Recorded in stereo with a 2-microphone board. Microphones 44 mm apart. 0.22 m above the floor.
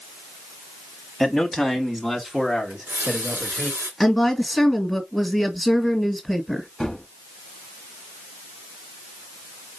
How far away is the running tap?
About 2 m.